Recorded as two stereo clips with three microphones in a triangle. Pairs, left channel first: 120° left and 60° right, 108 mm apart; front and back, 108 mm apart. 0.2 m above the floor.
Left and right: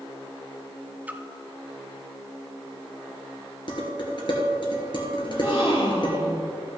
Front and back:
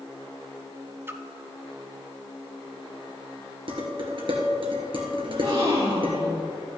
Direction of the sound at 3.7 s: 155° left.